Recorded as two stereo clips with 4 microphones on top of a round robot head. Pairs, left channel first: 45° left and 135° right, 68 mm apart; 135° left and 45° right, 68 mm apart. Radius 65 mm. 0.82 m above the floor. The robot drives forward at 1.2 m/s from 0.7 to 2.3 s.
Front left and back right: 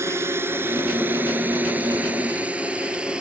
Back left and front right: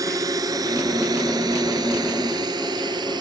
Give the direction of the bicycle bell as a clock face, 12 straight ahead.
I don't hear a bicycle bell.